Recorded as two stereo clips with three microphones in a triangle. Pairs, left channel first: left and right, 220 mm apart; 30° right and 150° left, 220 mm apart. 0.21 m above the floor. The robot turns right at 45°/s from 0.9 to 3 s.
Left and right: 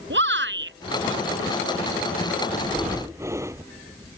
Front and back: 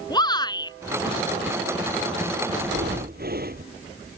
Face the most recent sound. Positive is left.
turn(degrees=-165)